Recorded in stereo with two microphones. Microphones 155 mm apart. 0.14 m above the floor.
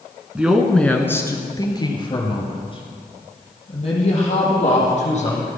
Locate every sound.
0.3 s a woman speaking: 10° right (ahead or behind), 1.7 m; by 5.5 s 40° left (ahead or behind), 7 m